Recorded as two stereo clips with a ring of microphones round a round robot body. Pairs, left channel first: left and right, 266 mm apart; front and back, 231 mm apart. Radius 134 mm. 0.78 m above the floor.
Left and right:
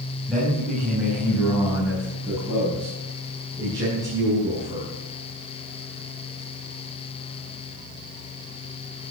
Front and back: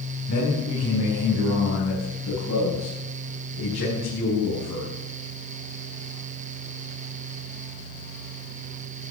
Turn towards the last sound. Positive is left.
turn(degrees=-15)